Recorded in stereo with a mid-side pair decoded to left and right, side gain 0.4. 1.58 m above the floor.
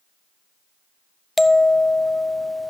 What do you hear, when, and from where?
1.4 s a bell: 15° left, 0.6 m